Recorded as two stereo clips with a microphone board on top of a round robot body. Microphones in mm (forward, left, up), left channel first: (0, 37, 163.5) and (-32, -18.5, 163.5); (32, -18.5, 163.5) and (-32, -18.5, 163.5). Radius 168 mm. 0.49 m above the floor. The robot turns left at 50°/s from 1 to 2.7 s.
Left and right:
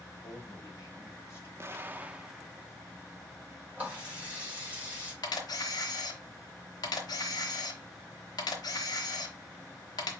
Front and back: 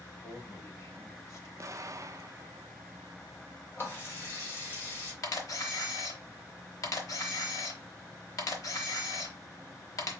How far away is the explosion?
About 0.6 m.